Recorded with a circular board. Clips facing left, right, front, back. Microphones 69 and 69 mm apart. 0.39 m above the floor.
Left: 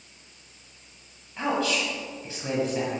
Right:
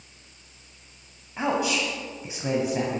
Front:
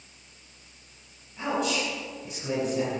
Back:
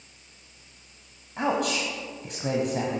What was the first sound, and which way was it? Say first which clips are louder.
A man speaking: right 1 dB, back 2 dB; 160° right.